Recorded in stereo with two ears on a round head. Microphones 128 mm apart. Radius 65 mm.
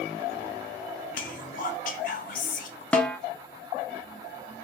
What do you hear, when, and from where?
1.1 s whispering: 65° left (ahead or behind), 0.5 m
2.9 s a snare drum: 5° left (ahead or behind), 0.5 m